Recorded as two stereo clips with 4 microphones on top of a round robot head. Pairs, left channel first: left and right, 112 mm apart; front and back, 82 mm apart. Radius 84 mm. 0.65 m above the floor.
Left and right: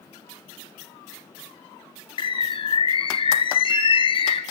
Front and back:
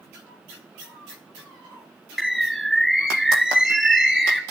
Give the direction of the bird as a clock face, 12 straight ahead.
9 o'clock.